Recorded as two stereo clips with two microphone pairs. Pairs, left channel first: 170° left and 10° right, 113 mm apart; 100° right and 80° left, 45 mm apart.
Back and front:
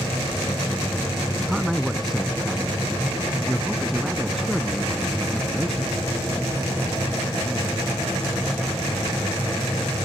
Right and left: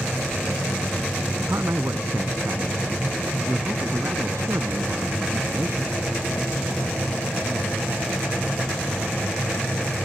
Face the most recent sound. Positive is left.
turn(degrees=80)